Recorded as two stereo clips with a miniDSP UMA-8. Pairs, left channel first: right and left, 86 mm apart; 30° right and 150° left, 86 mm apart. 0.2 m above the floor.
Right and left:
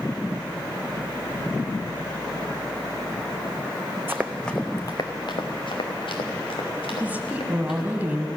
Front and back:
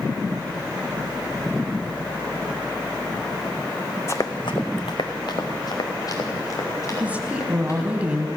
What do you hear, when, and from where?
4.1 s running footsteps: 25° left, 1.0 m; by 7.9 s 80° right, 5.5 m
7.0 s a woman speaking: 115° left, 1.2 m